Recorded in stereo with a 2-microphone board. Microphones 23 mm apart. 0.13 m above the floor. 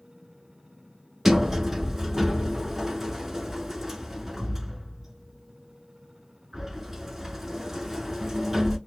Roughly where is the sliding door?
Centre.